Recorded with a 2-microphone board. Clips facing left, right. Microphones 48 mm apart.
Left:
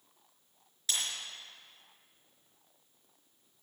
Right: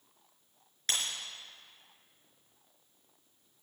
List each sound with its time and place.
0.9 s breaking glass: 55° right (ahead or behind), 4.5 m